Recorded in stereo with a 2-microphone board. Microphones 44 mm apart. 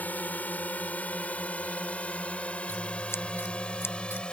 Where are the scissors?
85° left.